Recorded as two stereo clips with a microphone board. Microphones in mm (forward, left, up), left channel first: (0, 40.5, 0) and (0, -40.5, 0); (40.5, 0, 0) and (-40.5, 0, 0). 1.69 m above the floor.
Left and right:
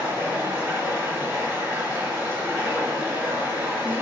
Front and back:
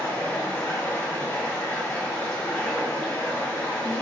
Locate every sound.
0.0 s running water: 50° right, 2 m